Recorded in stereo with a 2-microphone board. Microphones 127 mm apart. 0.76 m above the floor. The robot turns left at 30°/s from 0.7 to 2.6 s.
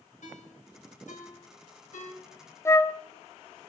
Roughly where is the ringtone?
Left.